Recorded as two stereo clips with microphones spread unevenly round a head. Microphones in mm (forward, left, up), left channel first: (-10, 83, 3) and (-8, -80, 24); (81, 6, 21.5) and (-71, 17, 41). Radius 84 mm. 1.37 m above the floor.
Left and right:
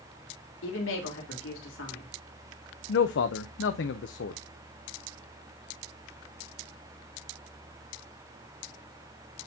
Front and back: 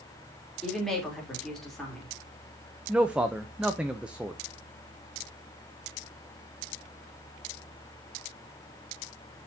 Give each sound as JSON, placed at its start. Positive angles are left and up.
{"t": 0.6, "sound": "a woman speaking", "azimuth_deg": 85, "distance_m": 3.0}
{"t": 2.9, "sound": "a man speaking", "azimuth_deg": 90, "distance_m": 0.6}